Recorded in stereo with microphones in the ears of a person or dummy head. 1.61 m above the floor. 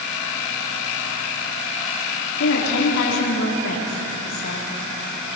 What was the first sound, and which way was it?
A woman speaking, 80° left.